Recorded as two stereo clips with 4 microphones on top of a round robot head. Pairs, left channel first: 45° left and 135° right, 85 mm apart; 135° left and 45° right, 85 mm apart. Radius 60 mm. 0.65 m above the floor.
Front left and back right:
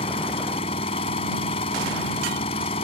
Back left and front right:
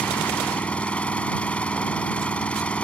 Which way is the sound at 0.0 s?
60° left.